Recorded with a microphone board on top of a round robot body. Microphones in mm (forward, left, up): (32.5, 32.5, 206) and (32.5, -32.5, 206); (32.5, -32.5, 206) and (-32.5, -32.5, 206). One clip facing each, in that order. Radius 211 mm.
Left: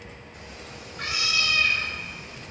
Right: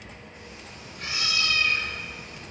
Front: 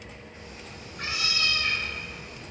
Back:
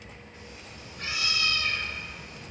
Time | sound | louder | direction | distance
0.3 | a cat meowing | left 2 dB, front 2 dB | 55° left | 2 m